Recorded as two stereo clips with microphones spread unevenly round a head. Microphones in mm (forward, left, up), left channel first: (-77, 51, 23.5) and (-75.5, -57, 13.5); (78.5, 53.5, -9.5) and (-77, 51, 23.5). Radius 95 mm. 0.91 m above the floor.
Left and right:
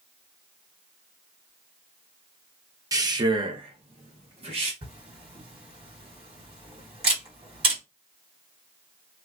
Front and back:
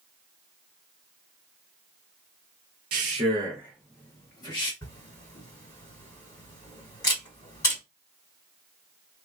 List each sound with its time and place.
2.9 s a man speaking: 140° right, 0.9 m; by 4.7 s 55° right, 1.4 m
4.8 s a camera shutter: 60° right, 1.7 m